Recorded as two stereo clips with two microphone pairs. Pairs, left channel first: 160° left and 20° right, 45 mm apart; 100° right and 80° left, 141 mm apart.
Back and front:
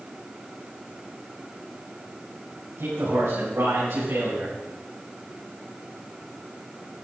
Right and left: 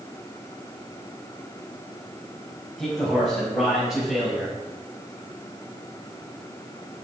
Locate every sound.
2.8 s a man speaking: 10° right, 6 m; by 4.5 s 5° right, 7 m